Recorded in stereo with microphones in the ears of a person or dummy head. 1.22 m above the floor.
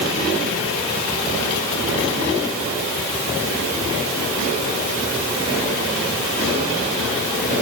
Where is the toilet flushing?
I don't hear a toilet flushing.